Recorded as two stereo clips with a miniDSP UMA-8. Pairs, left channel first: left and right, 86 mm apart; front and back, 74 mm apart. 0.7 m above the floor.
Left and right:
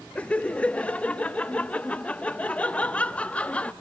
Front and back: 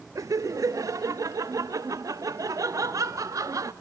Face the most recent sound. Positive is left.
turn(degrees=160)